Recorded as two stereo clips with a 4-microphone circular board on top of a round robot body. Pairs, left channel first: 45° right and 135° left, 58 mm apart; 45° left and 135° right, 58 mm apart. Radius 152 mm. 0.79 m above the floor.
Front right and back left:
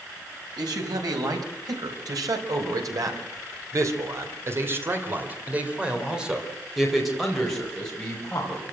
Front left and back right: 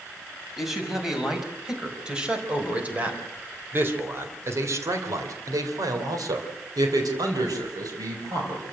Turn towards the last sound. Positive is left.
turn(degrees=-120)